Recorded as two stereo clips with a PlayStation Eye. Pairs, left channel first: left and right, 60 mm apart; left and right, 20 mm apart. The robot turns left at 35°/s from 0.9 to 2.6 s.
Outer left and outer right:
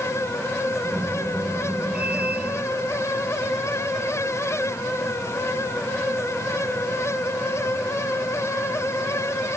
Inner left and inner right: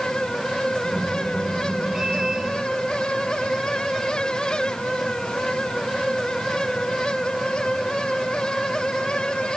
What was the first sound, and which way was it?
Only background noise.